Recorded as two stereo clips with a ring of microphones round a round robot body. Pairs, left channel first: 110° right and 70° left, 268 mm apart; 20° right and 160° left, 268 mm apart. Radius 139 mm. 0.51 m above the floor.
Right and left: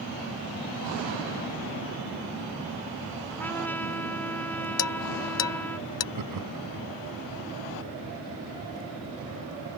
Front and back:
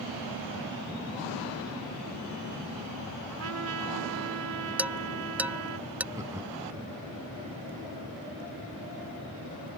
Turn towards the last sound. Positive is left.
turn(degrees=80)